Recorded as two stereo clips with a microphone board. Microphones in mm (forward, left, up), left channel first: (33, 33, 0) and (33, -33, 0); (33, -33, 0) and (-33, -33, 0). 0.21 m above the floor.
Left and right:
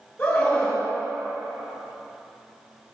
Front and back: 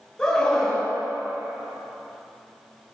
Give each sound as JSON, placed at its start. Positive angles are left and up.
{"t": 0.2, "sound": "a scream", "azimuth_deg": 45, "distance_m": 1.6}